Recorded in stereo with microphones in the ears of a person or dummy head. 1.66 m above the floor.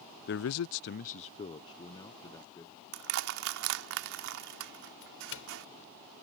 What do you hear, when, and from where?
0.3 s a man speaking: 45° left (ahead or behind); by 2.8 s 15° left (ahead or behind)
2.9 s crushing: 55° right (ahead or behind)
5.0 s a doorbell: 65° left (ahead or behind)